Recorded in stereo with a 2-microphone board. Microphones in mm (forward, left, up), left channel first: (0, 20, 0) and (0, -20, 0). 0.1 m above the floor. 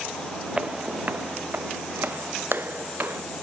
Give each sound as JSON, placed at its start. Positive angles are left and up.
{"t": 0.6, "sound": "footsteps", "side_deg": -25}